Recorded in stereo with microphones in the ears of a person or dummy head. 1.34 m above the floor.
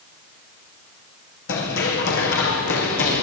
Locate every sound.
1.5 s running footsteps: 75° left (ahead or behind), 5 m; by 3.2 s 70° left (ahead or behind), 6 m